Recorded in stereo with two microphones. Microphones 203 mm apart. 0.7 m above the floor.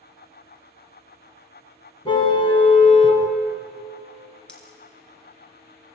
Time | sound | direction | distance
2.0 | a car horn | 25° left (ahead or behind) | 2.5 m
4.5 | a dropped coin | 5° left (ahead or behind) | 3.5 m